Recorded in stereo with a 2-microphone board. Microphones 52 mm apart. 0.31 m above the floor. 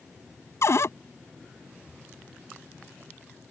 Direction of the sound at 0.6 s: 70° left (ahead or behind).